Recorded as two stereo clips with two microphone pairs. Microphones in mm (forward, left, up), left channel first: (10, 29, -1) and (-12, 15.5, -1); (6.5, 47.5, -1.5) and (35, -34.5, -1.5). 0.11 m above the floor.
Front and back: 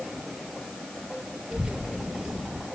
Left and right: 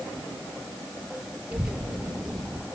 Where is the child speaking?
140° right, 1.8 m; by 2.6 s 165° right, 2 m.